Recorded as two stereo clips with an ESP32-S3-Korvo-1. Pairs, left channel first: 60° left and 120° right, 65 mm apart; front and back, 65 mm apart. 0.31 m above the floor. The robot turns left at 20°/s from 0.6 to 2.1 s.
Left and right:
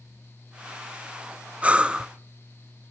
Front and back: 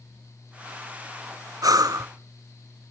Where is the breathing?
170° left, 0.6 m; by 2.1 s 160° left, 0.6 m.